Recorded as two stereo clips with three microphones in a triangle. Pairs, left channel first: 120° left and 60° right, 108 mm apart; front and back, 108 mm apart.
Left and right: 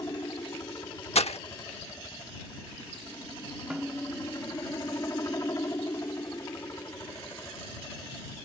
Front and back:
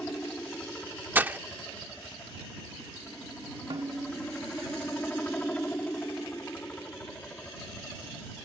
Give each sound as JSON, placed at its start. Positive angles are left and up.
{"t": 0.0, "sound": "a helicopter", "azimuth_deg": 75}
{"t": 1.1, "sound": "breaking glass", "azimuth_deg": 110}
{"t": 3.7, "sound": "a snare drum", "azimuth_deg": -145}